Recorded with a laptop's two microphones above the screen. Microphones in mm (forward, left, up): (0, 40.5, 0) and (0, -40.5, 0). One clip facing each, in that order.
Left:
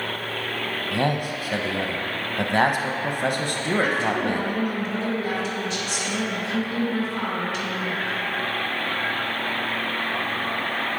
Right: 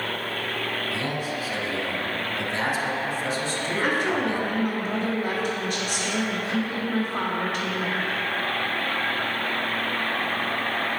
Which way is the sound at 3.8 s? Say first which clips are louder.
Right 2 dB; 50° right (ahead or behind).